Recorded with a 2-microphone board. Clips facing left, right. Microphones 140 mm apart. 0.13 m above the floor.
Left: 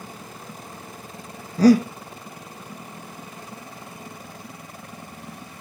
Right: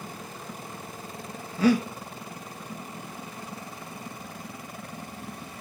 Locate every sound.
1.6 s breathing: 35° left (ahead or behind), 1.8 m